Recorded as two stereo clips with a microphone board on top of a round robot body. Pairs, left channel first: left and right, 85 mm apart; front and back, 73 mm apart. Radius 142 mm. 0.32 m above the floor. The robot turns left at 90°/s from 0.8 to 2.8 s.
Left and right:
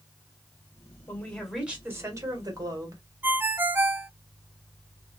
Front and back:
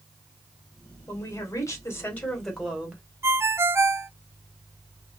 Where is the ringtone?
145° right, 0.6 m.